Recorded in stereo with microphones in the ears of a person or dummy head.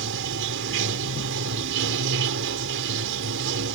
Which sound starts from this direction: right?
Running water, at 0.0 s.